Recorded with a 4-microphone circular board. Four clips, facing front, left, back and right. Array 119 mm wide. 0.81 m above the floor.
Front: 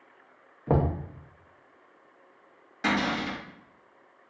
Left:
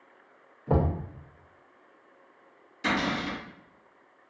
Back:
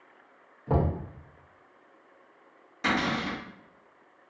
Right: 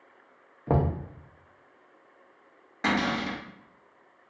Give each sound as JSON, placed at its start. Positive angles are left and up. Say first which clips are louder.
{"t": 0.7, "sound": "knocking", "louder": "even, front 2 dB", "azimuth_deg": -50, "distance_m": 0.5}
{"t": 2.8, "sound": "a cupboard door", "louder": "right 1 dB, front 1 dB", "azimuth_deg": -80, "distance_m": 1.5}